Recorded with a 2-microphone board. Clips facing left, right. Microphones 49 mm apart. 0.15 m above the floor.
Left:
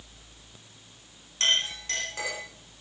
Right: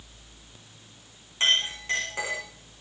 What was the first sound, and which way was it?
A clink, 20° right (ahead or behind).